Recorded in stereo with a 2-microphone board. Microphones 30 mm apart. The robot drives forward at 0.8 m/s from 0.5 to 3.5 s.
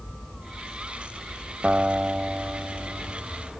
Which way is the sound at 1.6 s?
50° right (ahead or behind).